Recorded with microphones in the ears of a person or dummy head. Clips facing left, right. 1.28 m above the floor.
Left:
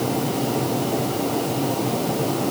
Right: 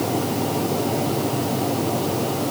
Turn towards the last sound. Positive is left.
No sound to turn to.